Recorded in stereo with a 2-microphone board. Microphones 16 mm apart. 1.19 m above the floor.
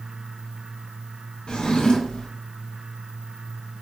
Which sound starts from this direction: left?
A drawer, at 1.5 s.